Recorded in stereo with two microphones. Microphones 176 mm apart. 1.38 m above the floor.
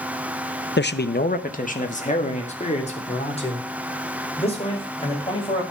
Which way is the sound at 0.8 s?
70° left (ahead or behind).